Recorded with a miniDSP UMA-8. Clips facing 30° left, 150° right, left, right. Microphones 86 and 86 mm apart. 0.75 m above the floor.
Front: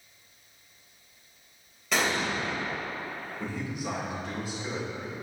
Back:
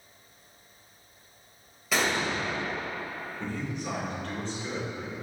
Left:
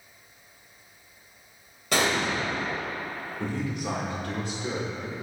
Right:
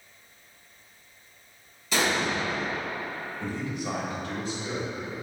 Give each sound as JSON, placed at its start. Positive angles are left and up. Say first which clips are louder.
{"t": 1.9, "sound": "an explosion", "louder": "even, left 1 dB", "azimuth_deg": 120, "distance_m": 2.0}
{"t": 3.4, "sound": "a man speaking", "louder": "even, left 2 dB", "azimuth_deg": 110, "distance_m": 2.5}